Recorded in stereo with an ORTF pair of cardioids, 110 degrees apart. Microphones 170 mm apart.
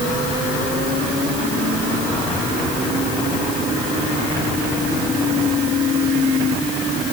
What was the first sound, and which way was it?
Only background noise.